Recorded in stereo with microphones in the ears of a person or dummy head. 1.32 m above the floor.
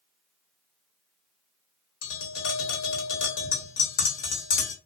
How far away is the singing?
No singing in this recording.